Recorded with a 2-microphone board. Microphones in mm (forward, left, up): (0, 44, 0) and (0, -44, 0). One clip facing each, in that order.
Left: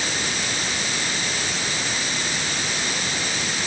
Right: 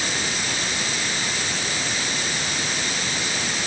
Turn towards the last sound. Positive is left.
No sound to turn to.